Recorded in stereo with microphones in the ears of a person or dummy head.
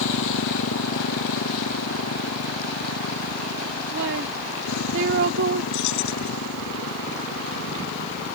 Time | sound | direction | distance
0.0 | a motorcycle | 75° left (ahead or behind) | ?
3.9 | a woman speaking | 65° right (ahead or behind) | ?
5.7 | keys jangling | 75° left (ahead or behind) | ?